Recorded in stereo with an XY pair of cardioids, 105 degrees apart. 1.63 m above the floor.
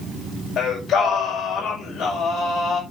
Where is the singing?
60° left, 6 m.